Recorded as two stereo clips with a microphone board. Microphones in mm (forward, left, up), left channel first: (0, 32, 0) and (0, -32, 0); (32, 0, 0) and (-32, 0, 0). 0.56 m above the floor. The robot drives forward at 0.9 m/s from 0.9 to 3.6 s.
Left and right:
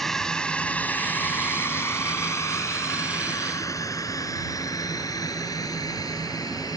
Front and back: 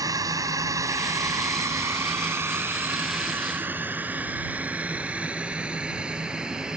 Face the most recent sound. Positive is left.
turn(degrees=100)